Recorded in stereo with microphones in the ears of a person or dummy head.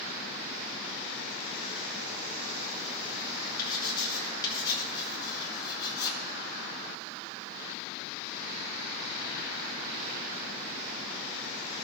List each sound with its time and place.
3.6 s writing: 20° left (ahead or behind), 2.5 m